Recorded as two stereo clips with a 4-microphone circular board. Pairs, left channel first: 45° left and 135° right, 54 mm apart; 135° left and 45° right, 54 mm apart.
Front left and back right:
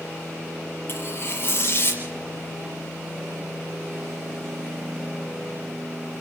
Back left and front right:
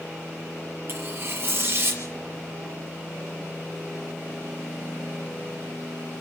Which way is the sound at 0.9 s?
Straight ahead.